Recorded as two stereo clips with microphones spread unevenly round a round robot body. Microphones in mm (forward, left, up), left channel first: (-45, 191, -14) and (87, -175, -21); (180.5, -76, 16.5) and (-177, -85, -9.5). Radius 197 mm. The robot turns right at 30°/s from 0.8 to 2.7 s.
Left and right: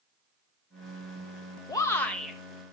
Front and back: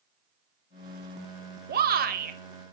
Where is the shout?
175° right, 1.0 m; by 2.4 s 155° right, 1.0 m.